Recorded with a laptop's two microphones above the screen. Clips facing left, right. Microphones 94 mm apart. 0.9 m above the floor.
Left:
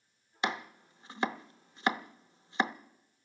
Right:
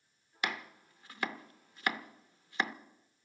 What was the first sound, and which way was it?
Chopping, 25° left (ahead or behind).